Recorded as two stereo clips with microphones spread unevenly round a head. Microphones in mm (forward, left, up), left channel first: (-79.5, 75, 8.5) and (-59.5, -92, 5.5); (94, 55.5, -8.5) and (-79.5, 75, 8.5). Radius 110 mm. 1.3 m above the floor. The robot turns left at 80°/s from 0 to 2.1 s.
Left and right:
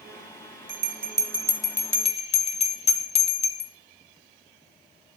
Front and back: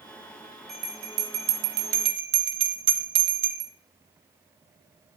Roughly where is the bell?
Right.